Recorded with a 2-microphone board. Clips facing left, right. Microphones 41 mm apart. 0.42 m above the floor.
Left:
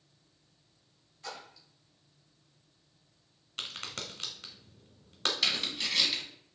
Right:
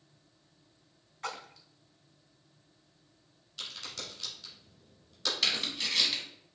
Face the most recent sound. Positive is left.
turn(degrees=5)  # may be behind; listen again after turning